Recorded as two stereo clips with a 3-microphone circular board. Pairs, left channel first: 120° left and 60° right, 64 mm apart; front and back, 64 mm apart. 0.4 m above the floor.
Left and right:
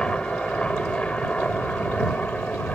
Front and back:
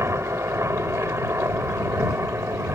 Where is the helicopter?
170° right; by 2.7 s straight behind.